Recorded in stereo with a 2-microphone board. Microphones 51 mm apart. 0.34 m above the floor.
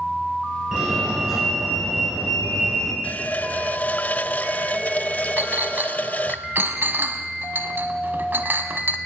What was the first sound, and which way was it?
A fire alarm, 10° right (ahead or behind).